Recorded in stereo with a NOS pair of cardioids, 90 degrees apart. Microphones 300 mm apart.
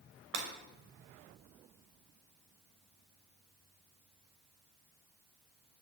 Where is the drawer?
I don't hear a drawer.